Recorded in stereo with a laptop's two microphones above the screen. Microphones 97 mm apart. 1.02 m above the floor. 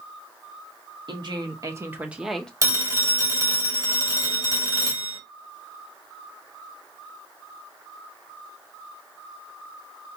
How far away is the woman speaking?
About 1.2 m.